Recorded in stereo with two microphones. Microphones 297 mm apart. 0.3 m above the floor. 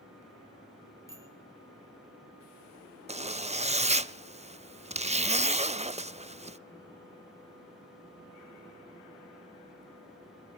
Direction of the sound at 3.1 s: 20° right (ahead or behind).